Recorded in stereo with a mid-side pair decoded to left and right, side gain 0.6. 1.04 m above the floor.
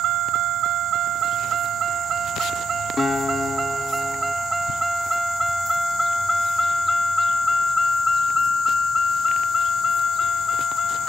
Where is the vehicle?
60° right; by 11.1 s 30° left.